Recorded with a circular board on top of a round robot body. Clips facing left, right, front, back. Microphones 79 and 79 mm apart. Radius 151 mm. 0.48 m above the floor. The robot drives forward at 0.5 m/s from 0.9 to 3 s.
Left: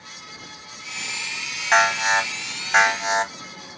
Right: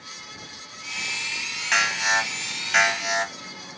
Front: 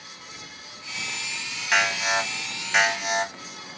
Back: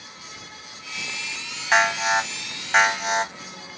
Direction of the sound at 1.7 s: 130° left.